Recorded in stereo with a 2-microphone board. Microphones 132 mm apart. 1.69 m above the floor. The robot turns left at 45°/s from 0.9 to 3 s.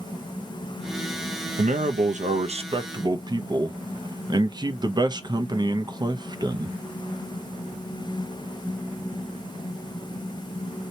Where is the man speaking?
80° right, 0.5 m; by 6.8 s 145° right, 0.5 m.